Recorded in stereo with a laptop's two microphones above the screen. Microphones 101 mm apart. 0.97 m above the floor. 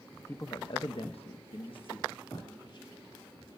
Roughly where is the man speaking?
Left.